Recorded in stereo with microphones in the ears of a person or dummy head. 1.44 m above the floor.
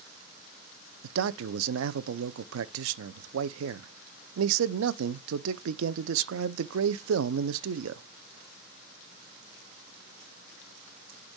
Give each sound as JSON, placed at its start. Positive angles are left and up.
{"t": 1.0, "sound": "a man speaking", "side_deg": -70, "distance_m": 0.6}